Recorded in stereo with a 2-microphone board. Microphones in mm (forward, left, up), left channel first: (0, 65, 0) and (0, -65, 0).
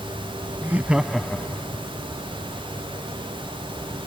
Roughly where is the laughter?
Centre.